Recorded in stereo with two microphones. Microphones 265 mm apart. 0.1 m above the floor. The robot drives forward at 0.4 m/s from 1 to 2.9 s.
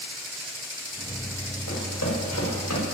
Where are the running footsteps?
70° left (ahead or behind), 7 m; by 2.8 s 75° left (ahead or behind), 6 m.